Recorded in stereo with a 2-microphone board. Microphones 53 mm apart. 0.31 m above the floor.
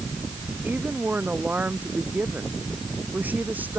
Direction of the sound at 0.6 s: 35° right (ahead or behind).